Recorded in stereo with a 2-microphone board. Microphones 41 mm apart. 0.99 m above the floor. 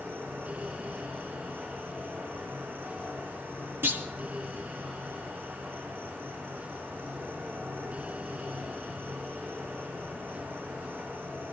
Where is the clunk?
65° right (ahead or behind), 1.9 m.